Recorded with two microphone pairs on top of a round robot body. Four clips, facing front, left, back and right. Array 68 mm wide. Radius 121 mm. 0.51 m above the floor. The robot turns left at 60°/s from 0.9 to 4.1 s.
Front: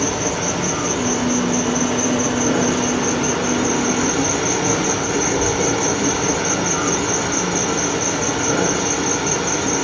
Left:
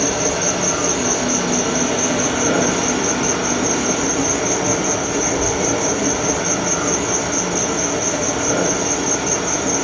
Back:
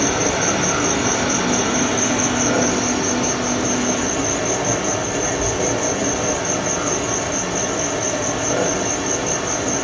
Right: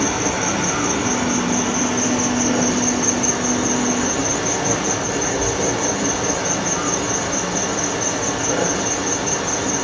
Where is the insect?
145° right, 1.8 m; by 9.8 s 20° left, 1.8 m.